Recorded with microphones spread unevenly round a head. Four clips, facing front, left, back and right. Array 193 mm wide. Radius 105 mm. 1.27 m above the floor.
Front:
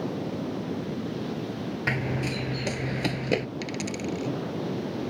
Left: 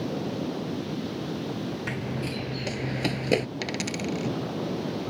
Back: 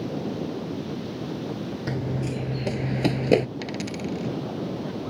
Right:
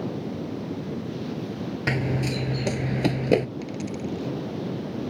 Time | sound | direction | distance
1.9 | running footsteps | 60° right | ?
3.6 | a dropped coin | 85° left | ?